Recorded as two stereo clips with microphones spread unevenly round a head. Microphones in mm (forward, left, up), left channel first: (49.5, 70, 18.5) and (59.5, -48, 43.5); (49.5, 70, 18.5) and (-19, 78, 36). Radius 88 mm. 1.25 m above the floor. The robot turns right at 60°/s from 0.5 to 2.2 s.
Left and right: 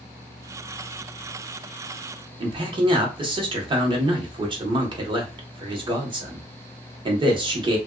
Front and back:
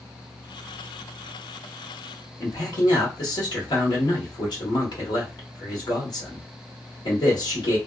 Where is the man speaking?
35° right, 1.1 m.